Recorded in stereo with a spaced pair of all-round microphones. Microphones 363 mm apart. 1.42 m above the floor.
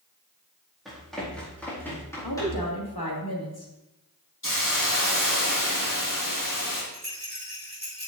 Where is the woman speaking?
80° left, 2.5 m.